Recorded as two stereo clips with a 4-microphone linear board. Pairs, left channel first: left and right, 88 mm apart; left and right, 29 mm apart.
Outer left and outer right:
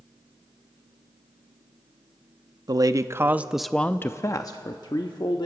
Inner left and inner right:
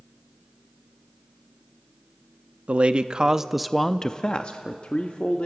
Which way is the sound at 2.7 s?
50° right (ahead or behind).